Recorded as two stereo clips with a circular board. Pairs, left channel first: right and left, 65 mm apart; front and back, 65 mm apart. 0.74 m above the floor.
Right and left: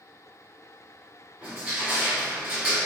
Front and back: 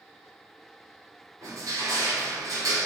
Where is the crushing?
160° left, 1.6 m.